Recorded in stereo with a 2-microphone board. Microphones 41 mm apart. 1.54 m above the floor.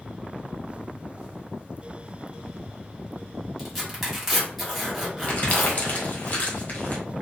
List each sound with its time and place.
3.6 s tearing paper: centre (ahead or behind), 1.2 m
5.3 s crumpling: 35° left (ahead or behind), 0.9 m